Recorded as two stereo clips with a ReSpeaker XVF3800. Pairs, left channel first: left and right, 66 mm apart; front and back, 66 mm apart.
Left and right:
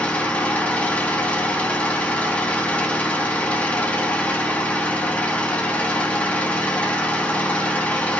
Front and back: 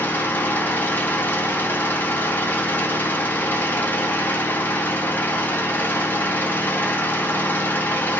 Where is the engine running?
30° left, 0.7 m.